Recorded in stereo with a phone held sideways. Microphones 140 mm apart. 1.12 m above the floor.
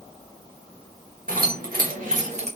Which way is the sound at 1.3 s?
75° right (ahead or behind).